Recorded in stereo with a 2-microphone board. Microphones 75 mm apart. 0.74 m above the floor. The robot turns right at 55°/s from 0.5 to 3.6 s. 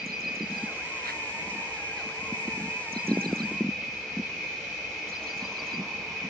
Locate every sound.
0.0 s an insect: 165° right, 0.8 m; by 6.3 s 5° left, 0.8 m